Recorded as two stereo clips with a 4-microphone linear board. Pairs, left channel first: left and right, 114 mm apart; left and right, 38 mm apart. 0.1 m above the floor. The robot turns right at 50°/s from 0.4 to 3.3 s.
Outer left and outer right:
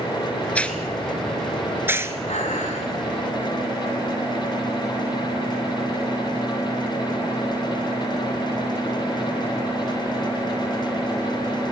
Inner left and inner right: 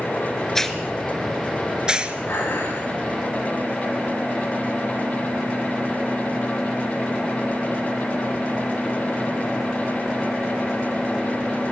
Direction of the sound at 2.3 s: 75° left.